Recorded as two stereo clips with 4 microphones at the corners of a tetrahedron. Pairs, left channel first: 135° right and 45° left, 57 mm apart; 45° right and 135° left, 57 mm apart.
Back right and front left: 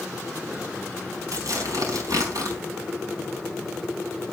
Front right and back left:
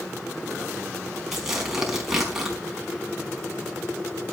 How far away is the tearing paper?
About 4.5 m.